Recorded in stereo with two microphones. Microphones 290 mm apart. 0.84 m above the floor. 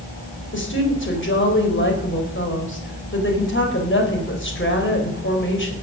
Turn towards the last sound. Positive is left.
turn(degrees=40)  # may be behind; listen again after turning